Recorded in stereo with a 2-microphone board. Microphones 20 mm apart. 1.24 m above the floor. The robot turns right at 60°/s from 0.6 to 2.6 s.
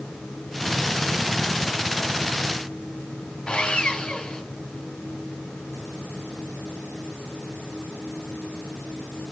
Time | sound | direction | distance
3.5 | sawing | 45° left (ahead or behind) | 2.5 m